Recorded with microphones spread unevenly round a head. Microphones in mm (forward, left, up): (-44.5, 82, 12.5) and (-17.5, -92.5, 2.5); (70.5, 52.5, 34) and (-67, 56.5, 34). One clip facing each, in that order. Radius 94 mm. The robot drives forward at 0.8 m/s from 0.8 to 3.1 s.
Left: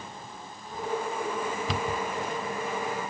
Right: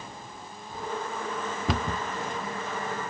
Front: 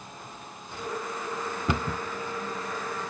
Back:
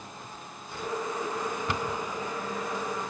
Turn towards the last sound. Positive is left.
turn(degrees=-125)